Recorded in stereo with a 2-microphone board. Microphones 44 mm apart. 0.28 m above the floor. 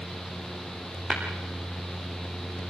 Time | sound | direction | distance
1.1 | tapping | 20° right (ahead or behind) | 5 m